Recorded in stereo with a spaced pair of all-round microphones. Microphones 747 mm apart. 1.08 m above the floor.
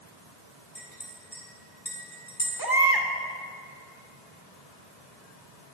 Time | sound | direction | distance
0.8 | a clink | 75° left (ahead or behind) | 4 m
2.6 | a baby crying | 30° right (ahead or behind) | 1.6 m